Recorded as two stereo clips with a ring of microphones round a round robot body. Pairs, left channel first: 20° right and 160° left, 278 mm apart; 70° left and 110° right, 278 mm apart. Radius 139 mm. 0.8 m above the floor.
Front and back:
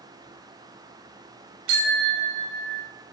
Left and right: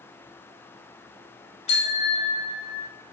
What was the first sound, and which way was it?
A bicycle bell, 135° left.